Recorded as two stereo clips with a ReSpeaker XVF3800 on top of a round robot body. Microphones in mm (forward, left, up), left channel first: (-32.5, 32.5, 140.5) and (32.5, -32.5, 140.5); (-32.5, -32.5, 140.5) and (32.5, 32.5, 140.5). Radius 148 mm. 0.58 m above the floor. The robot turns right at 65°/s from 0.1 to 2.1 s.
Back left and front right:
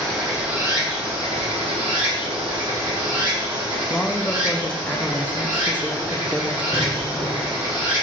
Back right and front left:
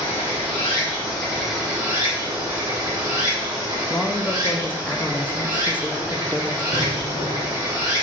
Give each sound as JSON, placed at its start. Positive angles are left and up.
{"t": 0.0, "sound": "running water", "azimuth_deg": -145, "distance_m": 1.4}
{"t": 3.9, "sound": "a woman speaking", "azimuth_deg": -170, "distance_m": 0.6}
{"t": 6.7, "sound": "an explosion", "azimuth_deg": -155, "distance_m": 0.8}